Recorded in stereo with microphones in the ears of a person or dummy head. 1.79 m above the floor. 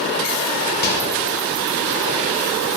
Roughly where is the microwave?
Left.